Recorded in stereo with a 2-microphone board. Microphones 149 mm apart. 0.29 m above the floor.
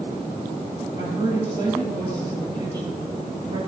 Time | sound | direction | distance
0.9 | a woman speaking | 30° right (ahead or behind) | 6 m